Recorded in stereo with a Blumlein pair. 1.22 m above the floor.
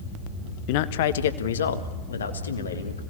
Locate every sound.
0.7 s a man speaking: 45° left, 1.0 m; by 3.0 s 75° left, 3 m